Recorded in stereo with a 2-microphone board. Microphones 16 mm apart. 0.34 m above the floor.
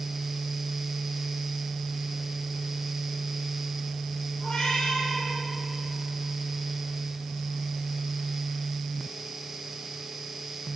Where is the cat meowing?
50° left (ahead or behind), 4 m.